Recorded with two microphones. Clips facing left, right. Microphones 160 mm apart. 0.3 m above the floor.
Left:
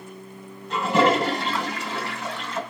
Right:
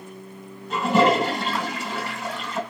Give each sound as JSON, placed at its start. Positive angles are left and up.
{"t": 0.7, "sound": "a toilet flushing", "side_deg": 0, "distance_m": 2.5}